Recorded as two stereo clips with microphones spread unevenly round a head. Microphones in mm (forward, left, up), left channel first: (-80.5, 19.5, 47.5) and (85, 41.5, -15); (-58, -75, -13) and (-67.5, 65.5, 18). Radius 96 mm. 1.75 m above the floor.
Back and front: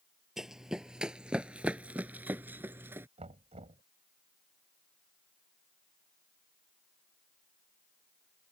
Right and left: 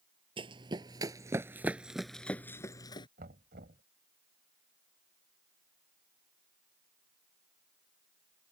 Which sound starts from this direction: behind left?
Running footsteps, at 0.4 s.